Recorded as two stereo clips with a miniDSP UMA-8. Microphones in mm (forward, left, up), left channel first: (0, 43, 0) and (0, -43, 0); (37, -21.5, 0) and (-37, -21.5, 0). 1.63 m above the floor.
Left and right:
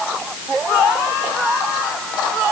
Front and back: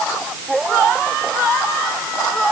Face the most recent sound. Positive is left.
No sound to turn to.